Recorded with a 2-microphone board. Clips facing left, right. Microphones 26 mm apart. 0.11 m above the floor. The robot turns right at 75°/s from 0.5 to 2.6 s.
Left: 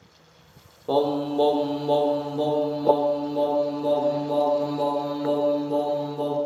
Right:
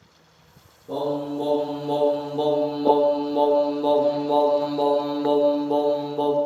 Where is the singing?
85° left, 0.5 m; by 6.3 s 145° right, 0.5 m.